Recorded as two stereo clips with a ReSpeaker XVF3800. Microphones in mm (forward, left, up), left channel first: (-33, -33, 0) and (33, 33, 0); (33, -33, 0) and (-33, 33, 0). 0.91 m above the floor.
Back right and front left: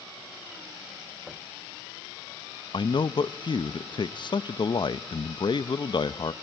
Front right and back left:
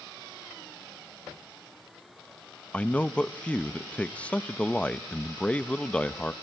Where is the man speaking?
120° right, 0.6 m.